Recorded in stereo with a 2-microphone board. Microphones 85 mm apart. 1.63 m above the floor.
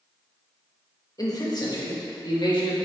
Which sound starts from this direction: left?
A man speaking, at 1.2 s.